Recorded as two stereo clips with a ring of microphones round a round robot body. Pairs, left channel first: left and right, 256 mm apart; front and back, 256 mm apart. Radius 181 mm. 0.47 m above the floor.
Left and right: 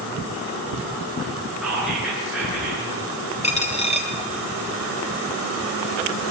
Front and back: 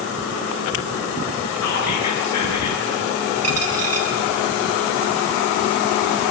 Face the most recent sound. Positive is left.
turn(degrees=155)